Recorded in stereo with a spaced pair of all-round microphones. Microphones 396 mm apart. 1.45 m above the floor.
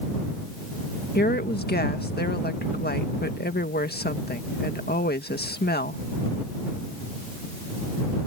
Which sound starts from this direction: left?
A woman speaking, at 1.1 s.